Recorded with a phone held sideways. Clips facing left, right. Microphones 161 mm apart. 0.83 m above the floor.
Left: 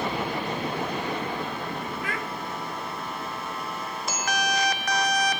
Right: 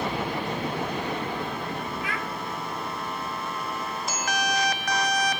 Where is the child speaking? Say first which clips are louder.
Even; 45° left (ahead or behind), 1.8 m.